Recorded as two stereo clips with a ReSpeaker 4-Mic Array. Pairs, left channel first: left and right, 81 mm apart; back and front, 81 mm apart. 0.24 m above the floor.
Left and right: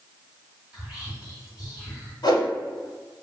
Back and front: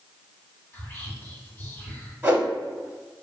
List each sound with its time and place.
0.7 s whispering: 155° right, 1.4 m
2.2 s a whoosh: 65° left, 0.7 m